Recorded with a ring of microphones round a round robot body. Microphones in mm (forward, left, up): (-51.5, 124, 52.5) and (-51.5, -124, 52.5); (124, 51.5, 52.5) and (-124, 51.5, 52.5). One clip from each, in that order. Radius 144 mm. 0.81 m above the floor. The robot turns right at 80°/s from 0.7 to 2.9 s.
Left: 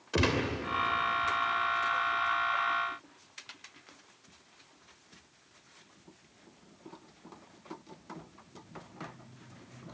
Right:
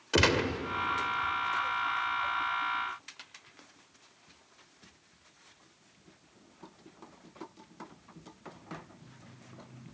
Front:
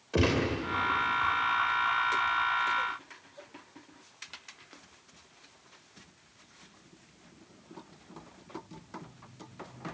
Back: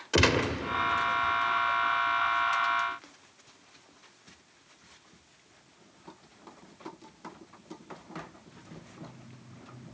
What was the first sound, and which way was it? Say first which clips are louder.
A gunshot: right 4 dB, back 4 dB; 135° right.